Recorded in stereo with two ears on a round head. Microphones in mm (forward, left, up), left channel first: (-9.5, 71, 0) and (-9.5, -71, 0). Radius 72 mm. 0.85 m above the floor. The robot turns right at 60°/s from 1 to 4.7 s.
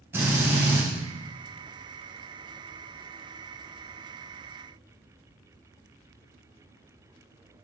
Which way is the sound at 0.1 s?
15° right (ahead or behind).